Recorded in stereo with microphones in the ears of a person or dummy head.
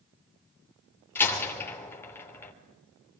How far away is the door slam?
About 3 m.